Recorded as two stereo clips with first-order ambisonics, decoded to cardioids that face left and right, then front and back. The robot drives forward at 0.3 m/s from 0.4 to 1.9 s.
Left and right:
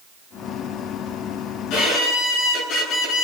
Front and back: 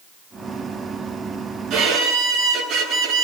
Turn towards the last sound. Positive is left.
turn(degrees=125)